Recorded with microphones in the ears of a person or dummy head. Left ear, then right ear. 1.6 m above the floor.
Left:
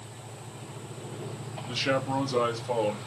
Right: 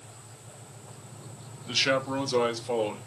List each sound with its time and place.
1.7 s a man speaking: 25° right (ahead or behind), 3 m; by 3.0 s 10° right (ahead or behind), 3.5 m